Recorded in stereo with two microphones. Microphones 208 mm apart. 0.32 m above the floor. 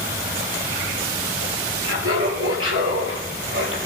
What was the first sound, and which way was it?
Laughter, 80° right.